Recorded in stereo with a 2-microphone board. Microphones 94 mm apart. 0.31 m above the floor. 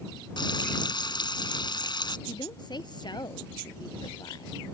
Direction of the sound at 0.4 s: 50° left (ahead or behind).